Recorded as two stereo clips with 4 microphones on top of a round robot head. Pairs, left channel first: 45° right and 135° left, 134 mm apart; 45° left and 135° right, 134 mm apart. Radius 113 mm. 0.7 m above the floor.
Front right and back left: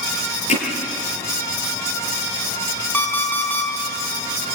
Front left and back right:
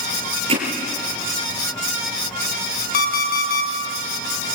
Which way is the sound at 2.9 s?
35° left.